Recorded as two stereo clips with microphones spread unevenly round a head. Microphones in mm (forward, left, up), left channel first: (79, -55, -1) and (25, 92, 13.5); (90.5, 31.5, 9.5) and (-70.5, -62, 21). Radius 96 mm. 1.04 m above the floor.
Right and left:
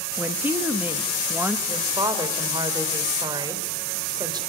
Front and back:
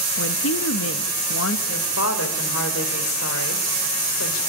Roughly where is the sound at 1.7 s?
Ahead left.